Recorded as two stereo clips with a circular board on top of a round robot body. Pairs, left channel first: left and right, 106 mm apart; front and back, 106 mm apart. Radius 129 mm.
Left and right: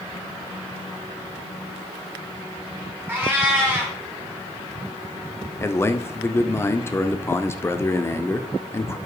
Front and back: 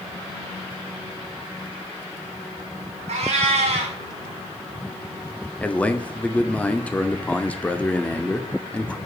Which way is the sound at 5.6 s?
60° left.